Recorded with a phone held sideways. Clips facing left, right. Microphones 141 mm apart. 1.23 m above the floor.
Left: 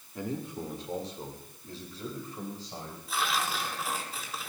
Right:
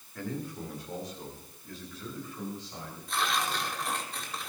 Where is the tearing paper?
5° left (ahead or behind), 4.5 m.